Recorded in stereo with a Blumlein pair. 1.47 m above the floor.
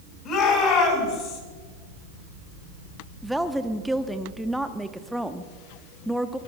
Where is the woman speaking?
Straight ahead, 0.9 m.